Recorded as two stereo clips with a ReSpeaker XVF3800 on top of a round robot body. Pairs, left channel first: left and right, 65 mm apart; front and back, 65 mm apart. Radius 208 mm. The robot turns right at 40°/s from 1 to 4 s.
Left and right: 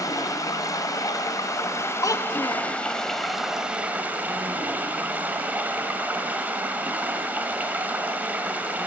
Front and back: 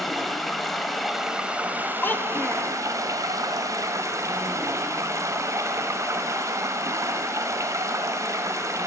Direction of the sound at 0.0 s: 90° left.